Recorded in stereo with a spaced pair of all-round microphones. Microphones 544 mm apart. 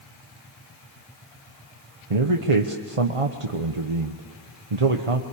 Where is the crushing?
No crushing in this recording.